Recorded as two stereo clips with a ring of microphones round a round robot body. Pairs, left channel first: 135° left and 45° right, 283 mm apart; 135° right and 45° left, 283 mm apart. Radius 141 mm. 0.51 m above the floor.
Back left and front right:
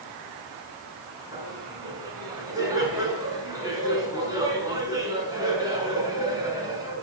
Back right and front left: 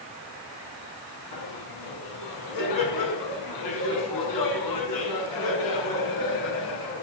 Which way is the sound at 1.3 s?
120° right.